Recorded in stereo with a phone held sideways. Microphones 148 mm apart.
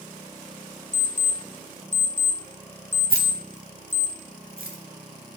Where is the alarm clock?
55° left (ahead or behind), 1.0 m.